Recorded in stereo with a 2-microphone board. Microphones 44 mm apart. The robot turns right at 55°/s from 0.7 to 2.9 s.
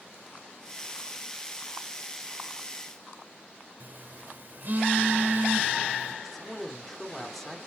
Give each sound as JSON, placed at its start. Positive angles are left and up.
{"t": 3.8, "sound": "a phone buzzing", "side_deg": -50, "distance_m": 0.9}
{"t": 6.2, "sound": "a man speaking", "side_deg": 5, "distance_m": 2.0}